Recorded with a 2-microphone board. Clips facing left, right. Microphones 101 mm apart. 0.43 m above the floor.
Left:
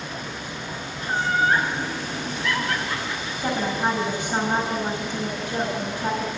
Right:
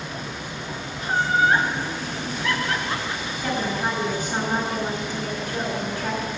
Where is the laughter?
15° right (ahead or behind), 7.5 m.